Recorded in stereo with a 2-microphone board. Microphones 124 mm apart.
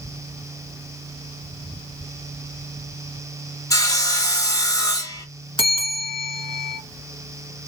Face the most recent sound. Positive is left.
turn(degrees=45)  # may be behind; listen again after turning